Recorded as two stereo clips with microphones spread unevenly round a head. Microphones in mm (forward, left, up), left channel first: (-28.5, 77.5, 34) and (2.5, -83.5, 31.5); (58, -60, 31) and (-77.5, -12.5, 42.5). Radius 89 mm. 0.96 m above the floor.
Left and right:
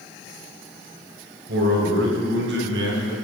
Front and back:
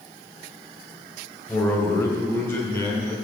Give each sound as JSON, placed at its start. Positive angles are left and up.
{"t": 1.5, "sound": "a man speaking", "azimuth_deg": -100, "distance_m": 4.5}